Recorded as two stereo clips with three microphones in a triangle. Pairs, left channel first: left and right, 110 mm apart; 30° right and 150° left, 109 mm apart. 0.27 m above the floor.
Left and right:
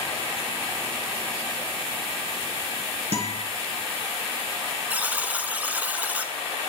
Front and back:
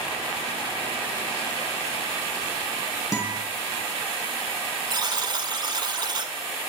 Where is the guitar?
85° right, 3 m.